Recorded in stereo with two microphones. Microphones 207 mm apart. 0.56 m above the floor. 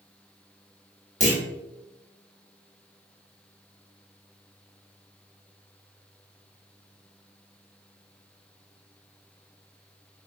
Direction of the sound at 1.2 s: 35° left (ahead or behind).